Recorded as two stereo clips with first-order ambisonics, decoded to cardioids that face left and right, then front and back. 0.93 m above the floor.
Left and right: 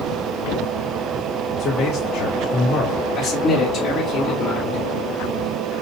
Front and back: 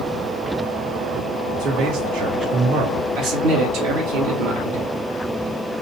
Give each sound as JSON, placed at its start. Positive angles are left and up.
{"t": 1.6, "sound": "a man speaking", "azimuth_deg": 145, "distance_m": 1.3}
{"t": 3.2, "sound": "a man speaking", "azimuth_deg": 160, "distance_m": 2.0}